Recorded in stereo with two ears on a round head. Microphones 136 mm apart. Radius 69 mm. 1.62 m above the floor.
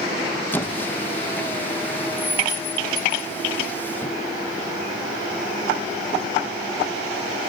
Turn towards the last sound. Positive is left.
turn(degrees=15)  # may be behind; listen again after turning